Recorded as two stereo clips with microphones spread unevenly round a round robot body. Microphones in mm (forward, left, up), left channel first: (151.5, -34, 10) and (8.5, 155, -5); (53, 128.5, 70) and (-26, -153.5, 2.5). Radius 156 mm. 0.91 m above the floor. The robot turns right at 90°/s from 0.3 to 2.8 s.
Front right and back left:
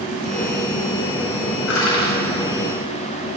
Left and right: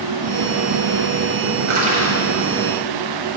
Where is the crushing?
50° right, 4.5 m; by 2.1 s 10° right, 4.5 m.